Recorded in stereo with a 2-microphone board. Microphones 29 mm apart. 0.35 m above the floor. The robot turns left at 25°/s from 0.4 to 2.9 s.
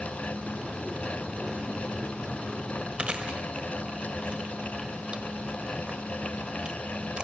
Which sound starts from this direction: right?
Chewing, at 3.0 s.